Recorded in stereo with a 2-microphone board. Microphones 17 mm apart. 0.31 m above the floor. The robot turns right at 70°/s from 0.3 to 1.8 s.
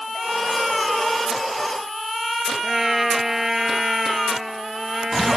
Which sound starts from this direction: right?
A trumpet, at 2.6 s.